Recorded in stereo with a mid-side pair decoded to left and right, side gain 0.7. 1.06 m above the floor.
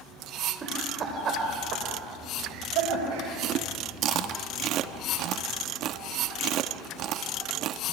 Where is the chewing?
50° right, 1.2 m.